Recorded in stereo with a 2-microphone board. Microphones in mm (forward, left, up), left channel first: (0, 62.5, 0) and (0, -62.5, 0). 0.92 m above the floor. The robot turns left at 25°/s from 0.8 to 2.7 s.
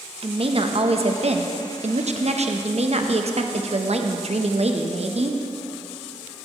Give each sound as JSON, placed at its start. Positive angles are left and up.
{"t": 0.2, "sound": "a woman speaking", "azimuth_deg": -60, "distance_m": 0.6}